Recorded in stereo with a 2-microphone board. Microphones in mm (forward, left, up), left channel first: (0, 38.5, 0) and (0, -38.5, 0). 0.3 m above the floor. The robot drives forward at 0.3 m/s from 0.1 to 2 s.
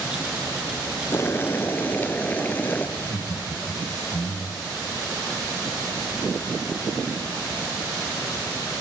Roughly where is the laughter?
Left.